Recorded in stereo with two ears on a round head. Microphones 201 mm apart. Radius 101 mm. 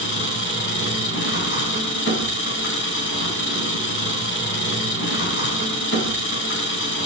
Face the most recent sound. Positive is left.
turn(degrees=55)  # may be behind; listen again after turning